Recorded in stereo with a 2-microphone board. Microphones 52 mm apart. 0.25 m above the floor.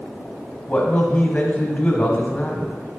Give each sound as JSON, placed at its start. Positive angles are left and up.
{"t": 0.7, "sound": "a man speaking", "side_deg": 20, "distance_m": 1.3}